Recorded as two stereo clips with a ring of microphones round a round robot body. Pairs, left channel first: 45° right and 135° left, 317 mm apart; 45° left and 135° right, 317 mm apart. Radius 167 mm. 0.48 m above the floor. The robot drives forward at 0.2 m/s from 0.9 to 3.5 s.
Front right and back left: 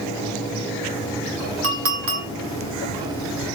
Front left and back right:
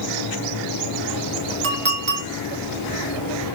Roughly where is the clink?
Behind.